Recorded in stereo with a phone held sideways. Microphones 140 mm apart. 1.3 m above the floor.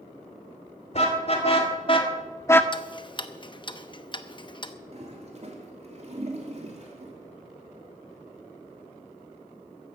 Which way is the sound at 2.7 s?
35° left (ahead or behind).